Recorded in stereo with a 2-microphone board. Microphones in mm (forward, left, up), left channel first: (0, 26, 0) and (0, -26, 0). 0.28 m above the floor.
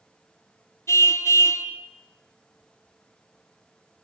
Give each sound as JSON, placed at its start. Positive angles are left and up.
{"t": 0.9, "sound": "a car horn", "side_deg": 65, "distance_m": 2.0}